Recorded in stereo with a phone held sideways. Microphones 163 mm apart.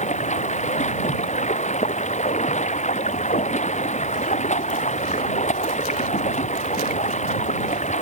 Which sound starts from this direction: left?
Running water, at 0.0 s.